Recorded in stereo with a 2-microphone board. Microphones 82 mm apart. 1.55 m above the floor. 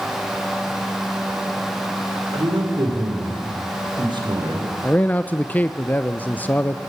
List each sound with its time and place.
2.3 s a man speaking: 75° right (ahead or behind), 5.5 m
4.8 s a man speaking: 20° left (ahead or behind), 0.6 m